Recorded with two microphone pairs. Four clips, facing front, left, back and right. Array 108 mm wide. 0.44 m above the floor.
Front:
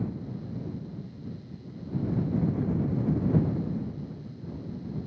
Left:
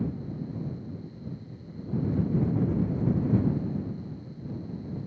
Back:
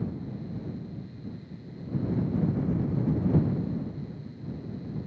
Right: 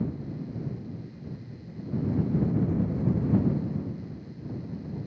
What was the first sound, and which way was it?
Only background noise.